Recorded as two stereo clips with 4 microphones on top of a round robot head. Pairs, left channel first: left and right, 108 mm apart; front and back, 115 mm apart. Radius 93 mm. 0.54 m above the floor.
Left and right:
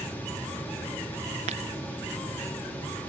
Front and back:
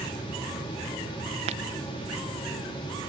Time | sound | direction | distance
1.5 | breaking glass | 130° right | ?